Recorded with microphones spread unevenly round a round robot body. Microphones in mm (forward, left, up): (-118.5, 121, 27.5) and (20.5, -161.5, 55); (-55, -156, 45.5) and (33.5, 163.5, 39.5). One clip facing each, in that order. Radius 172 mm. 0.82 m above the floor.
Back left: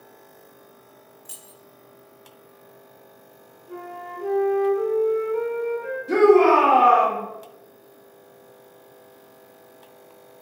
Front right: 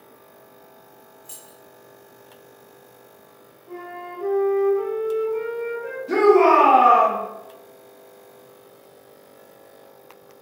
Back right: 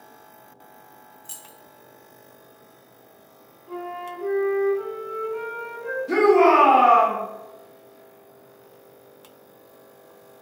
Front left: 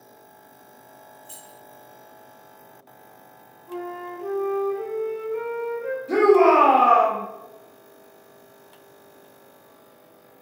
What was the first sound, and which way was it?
Keys jangling, 165° right.